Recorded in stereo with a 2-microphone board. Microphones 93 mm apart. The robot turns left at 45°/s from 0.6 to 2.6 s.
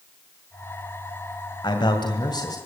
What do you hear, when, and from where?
1.6 s a man speaking: 100° left, 2 m; by 2.6 s 55° left, 2 m